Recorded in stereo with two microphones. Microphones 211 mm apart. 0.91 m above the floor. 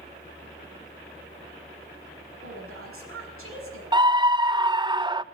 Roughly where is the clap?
I don't hear a clap.